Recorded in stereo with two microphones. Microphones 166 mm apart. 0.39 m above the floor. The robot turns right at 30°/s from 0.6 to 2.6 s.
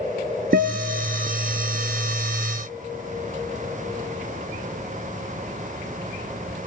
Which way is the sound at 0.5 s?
70° right (ahead or behind).